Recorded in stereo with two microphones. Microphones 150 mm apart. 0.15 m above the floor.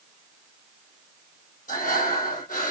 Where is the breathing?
70° left (ahead or behind), 2 m.